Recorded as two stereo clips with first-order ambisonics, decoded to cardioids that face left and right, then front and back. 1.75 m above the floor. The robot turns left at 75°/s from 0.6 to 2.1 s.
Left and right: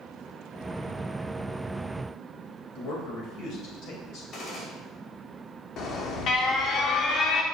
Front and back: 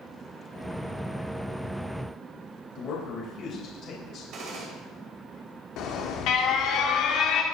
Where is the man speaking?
55° left, 2.5 m.